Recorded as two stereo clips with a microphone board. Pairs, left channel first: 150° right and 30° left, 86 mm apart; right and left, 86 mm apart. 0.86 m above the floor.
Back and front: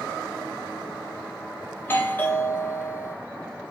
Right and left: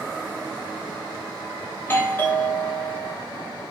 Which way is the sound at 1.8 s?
120° right.